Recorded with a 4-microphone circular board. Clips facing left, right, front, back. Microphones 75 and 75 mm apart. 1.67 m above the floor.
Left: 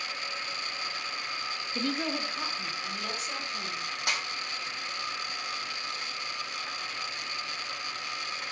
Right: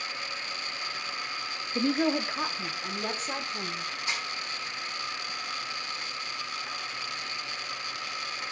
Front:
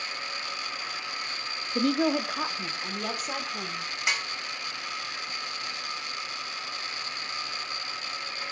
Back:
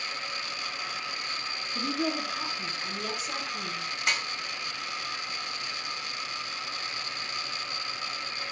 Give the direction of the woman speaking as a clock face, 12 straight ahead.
1 o'clock.